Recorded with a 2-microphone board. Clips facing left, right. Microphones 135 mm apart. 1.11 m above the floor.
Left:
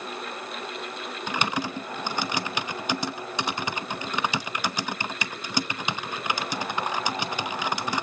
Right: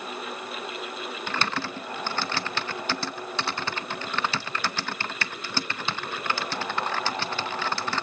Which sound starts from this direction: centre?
Typing on a keyboard, at 1.3 s.